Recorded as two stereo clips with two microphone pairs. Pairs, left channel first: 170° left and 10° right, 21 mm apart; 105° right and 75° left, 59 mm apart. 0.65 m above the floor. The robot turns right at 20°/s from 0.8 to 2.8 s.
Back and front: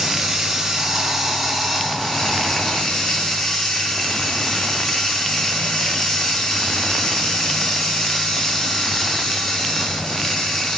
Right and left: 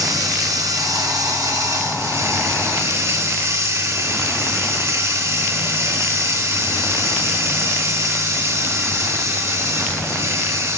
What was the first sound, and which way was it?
Running water, 70° left.